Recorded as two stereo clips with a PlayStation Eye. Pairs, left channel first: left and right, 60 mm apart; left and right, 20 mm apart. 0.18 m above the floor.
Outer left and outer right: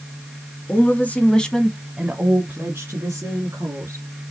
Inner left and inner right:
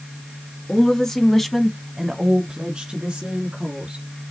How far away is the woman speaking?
About 1.8 m.